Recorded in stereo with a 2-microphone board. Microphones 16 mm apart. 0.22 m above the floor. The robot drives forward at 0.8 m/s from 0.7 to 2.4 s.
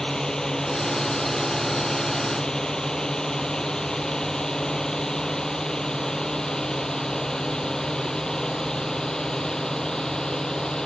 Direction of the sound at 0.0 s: 40° left (ahead or behind).